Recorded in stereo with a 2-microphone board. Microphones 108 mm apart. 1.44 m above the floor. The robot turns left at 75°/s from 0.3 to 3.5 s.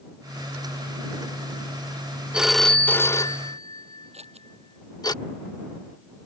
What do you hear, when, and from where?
2.3 s a phone ringing: 10° right (ahead or behind); by 5.1 s 40° left (ahead or behind)
4.1 s scissors: 80° right